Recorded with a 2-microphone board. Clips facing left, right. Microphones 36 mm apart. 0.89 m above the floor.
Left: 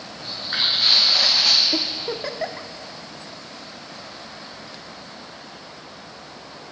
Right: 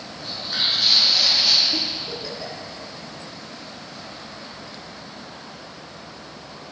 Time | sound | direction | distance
0.2 | footsteps | 25° left (ahead or behind) | 2.5 m
1.7 | a giggle | 55° left (ahead or behind) | 0.7 m